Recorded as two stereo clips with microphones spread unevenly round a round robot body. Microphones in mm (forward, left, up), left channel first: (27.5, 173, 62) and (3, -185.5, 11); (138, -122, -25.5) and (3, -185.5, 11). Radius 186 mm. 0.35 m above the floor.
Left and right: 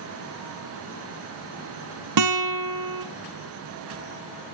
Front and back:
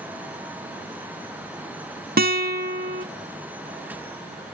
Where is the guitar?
135° right, 1.0 m.